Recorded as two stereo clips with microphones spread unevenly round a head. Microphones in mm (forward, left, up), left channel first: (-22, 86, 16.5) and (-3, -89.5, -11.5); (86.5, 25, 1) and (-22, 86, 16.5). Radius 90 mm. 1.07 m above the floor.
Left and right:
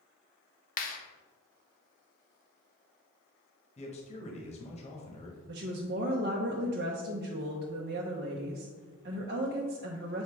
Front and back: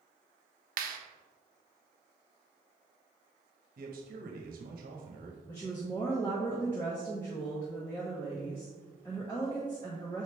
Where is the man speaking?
155° left, 1.1 m.